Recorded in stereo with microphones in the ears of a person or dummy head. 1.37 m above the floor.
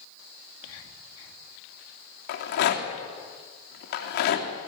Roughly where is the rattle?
Left.